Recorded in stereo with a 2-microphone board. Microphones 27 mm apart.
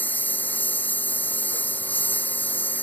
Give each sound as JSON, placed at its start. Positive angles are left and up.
{"t": 0.0, "sound": "a lawn mower", "side_deg": 90}